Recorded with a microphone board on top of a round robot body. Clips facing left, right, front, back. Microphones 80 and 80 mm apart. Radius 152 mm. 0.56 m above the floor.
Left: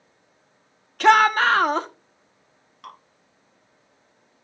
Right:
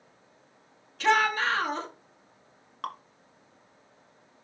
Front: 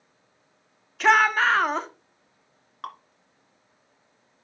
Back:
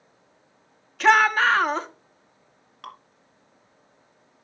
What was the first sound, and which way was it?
A shout, 90° left.